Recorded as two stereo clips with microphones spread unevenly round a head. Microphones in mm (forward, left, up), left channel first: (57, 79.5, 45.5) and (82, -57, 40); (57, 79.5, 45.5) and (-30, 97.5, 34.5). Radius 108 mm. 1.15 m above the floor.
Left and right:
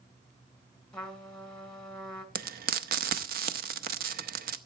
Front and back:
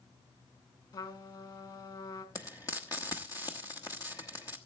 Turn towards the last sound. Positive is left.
turn(degrees=-80)